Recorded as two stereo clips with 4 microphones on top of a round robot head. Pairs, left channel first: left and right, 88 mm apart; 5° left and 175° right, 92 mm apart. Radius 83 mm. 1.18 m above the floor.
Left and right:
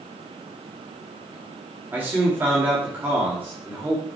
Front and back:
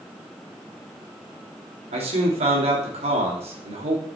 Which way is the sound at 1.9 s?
165° right.